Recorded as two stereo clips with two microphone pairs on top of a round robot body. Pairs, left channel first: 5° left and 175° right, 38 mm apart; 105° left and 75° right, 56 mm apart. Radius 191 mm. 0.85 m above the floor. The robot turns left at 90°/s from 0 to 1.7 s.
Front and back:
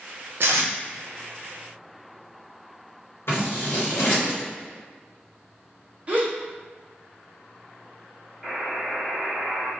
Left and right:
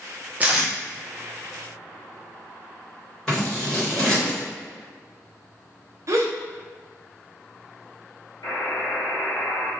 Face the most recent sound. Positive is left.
turn(degrees=115)